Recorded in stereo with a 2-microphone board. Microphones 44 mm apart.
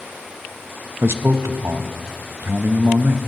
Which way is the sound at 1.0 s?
80° right.